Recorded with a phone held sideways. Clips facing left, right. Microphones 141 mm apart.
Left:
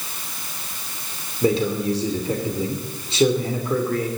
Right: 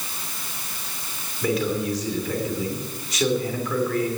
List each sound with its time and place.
1.4 s a man speaking: 30° left (ahead or behind), 3 m